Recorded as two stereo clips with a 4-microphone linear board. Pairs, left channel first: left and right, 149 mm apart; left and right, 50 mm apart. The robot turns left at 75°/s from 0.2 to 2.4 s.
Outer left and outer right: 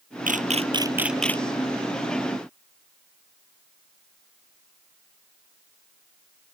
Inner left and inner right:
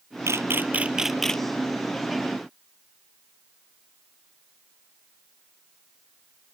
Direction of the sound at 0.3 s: 65° right (ahead or behind).